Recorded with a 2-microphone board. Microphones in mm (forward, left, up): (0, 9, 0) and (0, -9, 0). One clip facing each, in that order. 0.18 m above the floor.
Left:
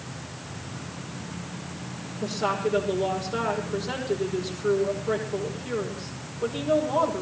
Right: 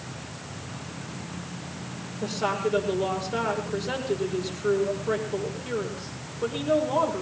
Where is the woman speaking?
10° right (ahead or behind), 6.5 m.